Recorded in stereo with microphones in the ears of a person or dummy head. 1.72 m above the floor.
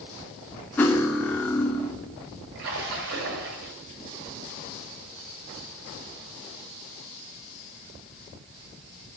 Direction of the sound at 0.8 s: 10° left (ahead or behind).